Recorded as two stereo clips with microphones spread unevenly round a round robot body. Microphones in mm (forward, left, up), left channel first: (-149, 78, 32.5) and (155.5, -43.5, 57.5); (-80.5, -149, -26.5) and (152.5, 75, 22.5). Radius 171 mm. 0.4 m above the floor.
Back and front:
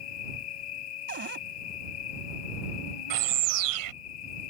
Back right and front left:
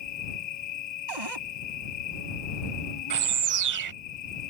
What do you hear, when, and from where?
0.0 s an insect: 175° left
1.1 s a cupboard door: 40° left
3.1 s a bird: 10° left